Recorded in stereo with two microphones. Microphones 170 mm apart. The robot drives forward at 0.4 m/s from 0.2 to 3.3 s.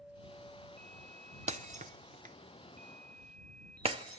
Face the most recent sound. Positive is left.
turn(degrees=-35)  # may be behind; listen again after turning